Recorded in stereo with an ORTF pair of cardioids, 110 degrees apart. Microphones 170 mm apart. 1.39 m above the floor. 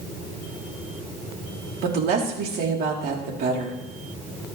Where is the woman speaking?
70° right, 4 m.